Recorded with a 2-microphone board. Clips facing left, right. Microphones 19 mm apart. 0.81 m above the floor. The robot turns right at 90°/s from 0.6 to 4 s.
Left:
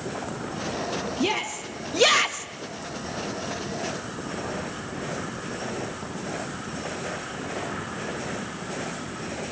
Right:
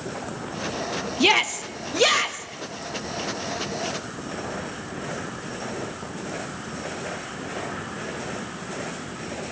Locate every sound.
1.2 s a shout: 40° right (ahead or behind), 0.9 m; by 2.5 s 25° left (ahead or behind), 0.9 m